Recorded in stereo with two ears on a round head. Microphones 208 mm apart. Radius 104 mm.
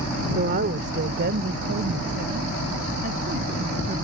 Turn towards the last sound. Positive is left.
turn(degrees=-35)  # may be behind; listen again after turning